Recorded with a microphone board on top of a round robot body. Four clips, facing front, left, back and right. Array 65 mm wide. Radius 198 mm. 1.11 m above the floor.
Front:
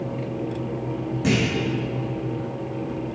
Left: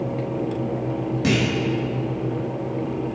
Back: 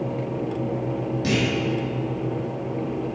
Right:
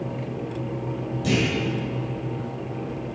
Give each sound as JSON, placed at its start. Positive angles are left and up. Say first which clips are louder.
{"t": 1.2, "sound": "a clunk", "louder": "left 1 dB, front 2 dB", "azimuth_deg": 65, "distance_m": 2.5}